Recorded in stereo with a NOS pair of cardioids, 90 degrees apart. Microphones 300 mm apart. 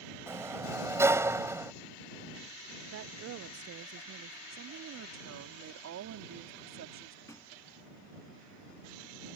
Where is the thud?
10° left.